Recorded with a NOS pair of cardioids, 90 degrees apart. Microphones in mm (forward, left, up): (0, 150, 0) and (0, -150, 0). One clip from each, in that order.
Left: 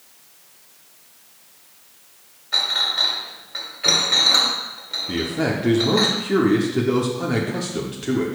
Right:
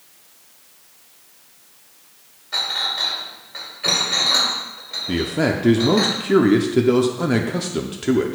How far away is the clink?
About 2 m.